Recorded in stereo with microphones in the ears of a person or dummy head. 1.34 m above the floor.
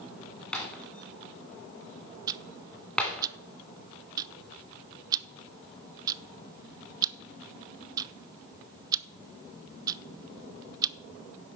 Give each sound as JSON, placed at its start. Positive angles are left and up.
{"t": 0.5, "sound": "breaking glass", "side_deg": 10, "distance_m": 1.8}
{"t": 2.3, "sound": "ticking", "side_deg": -20, "distance_m": 0.5}